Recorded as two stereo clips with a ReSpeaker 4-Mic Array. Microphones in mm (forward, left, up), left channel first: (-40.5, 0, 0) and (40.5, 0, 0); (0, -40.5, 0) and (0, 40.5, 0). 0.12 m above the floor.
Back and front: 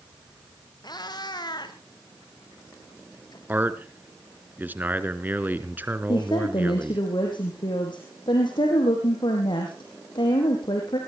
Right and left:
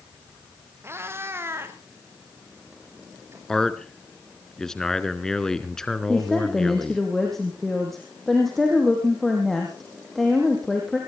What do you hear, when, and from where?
0.8 s a cat meowing: 150° left, 3 m
3.5 s a man speaking: 15° right, 1.3 m
6.1 s a woman speaking: 175° right, 4.5 m